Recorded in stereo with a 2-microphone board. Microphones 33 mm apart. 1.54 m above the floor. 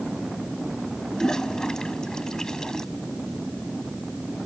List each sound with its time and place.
1.1 s a toilet flushing: 15° left (ahead or behind)